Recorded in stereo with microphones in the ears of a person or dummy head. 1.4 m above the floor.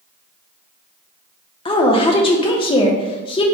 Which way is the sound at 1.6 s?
20° left (ahead or behind).